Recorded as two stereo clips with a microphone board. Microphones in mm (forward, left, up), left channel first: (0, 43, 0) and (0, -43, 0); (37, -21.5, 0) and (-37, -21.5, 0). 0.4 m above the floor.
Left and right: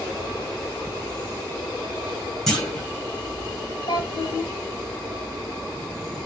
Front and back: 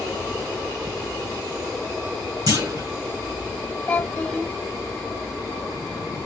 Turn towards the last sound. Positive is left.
turn(degrees=75)